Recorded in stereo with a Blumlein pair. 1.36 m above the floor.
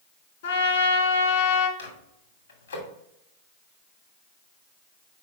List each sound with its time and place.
0.4 s a trumpet: 60° left, 1.9 m
1.8 s a microwave: 70° left, 2.5 m